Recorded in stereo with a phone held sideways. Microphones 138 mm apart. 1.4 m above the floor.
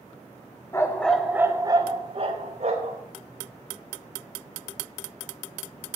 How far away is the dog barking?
About 1.4 m.